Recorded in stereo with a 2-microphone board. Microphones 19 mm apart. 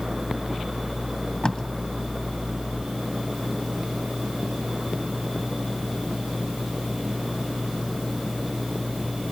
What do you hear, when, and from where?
1.4 s tape being pulled: 25° left (ahead or behind), 1.9 m